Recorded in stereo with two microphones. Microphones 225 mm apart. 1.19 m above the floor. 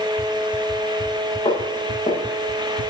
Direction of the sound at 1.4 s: 25° left (ahead or behind).